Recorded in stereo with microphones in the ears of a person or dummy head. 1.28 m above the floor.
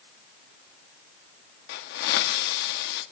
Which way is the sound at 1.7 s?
60° left (ahead or behind).